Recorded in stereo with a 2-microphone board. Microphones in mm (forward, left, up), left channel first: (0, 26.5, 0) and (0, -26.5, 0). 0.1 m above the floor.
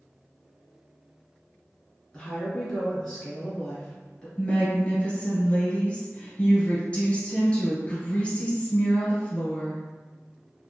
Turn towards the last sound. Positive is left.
turn(degrees=25)  # may be behind; listen again after turning